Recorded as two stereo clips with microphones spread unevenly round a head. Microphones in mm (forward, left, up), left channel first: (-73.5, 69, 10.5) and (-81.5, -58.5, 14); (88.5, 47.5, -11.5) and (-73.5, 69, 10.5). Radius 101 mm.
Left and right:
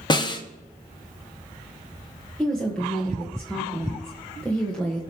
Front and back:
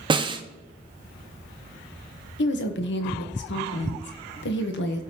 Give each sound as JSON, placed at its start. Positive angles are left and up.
{"t": 0.1, "sound": "a snare drum", "azimuth_deg": 130, "distance_m": 1.0}
{"t": 2.4, "sound": "a woman speaking", "azimuth_deg": 0, "distance_m": 1.3}